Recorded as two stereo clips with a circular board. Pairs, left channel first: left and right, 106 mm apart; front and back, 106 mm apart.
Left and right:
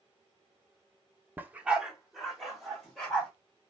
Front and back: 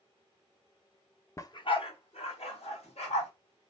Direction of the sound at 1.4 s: 35° right.